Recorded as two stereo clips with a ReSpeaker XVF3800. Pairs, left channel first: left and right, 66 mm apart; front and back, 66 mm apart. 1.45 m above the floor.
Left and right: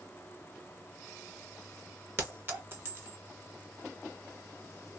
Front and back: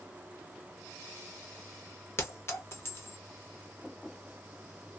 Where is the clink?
40° right, 1.0 m.